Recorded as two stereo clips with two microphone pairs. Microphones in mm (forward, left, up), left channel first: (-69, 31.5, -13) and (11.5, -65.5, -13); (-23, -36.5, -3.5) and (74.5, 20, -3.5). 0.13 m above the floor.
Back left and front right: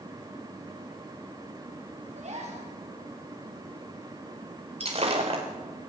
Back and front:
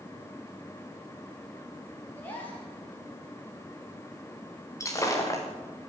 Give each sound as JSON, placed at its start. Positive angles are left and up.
{"t": 2.1, "sound": "a gasp", "azimuth_deg": -80, "distance_m": 9.5}
{"t": 4.8, "sound": "breaking glass", "azimuth_deg": -90, "distance_m": 5.0}